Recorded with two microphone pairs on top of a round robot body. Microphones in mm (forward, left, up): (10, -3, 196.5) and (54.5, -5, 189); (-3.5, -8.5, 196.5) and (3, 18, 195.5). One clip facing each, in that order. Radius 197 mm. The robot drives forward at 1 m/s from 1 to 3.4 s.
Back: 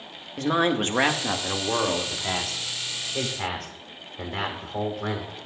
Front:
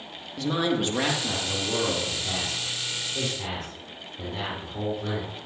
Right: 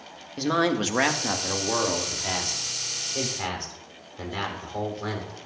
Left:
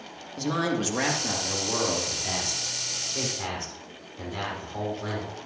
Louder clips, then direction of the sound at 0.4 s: Back 3 dB, right 3 dB; 155° right.